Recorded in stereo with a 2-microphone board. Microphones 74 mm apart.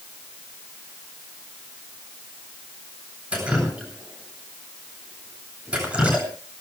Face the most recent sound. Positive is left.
turn(degrees=-15)  # may be behind; listen again after turning